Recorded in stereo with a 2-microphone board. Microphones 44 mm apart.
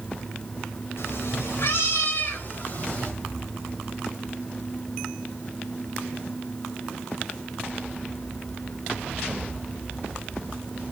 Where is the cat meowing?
65° left (ahead or behind), 2.5 m; by 3.1 s 30° left (ahead or behind), 2.5 m.